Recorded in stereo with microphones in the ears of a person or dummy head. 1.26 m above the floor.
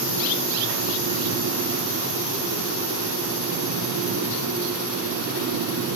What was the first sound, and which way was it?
Only background noise.